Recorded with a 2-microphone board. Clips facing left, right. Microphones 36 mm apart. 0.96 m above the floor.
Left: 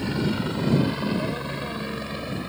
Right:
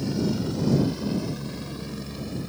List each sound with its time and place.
0.0 s a helicopter: 40° left (ahead or behind)